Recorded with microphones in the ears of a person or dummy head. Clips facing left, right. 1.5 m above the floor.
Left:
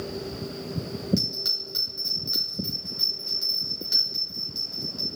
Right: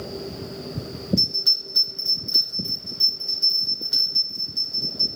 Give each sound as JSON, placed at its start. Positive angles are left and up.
{"t": 1.2, "sound": "a bell", "side_deg": 60, "distance_m": 1.7}